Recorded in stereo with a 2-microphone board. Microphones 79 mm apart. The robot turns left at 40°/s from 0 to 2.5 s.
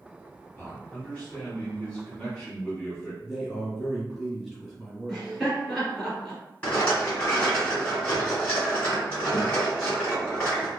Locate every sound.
0.6 s a man speaking: 15° left (ahead or behind), 1.6 m
3.2 s a man speaking: centre (ahead or behind), 1.3 m
5.1 s laughter: 5° left (ahead or behind), 1.8 m
6.6 s a rattle: 20° left (ahead or behind), 2.0 m